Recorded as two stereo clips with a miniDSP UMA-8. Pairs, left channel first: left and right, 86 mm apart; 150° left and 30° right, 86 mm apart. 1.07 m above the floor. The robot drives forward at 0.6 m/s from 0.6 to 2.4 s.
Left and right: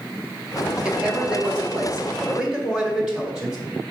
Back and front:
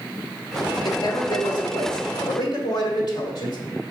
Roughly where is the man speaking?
Behind.